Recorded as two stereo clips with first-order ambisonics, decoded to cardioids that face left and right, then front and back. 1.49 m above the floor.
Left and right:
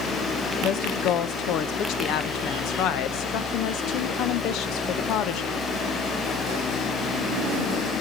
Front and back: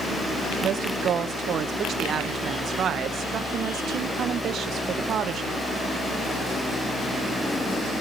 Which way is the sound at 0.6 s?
125° left.